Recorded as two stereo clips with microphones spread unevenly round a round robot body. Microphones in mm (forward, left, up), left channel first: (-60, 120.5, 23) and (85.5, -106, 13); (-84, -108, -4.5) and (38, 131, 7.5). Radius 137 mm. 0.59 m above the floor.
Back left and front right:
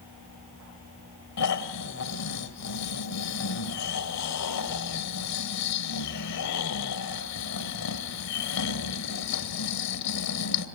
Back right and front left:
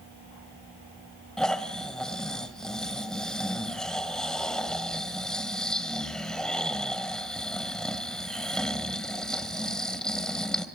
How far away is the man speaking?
I don't hear a man speaking.